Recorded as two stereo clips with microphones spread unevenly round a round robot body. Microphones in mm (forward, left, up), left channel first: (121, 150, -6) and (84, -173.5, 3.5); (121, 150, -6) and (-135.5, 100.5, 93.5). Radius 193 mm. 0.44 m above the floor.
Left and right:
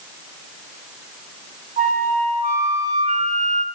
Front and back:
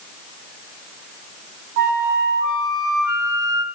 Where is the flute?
170° right, 3.5 m.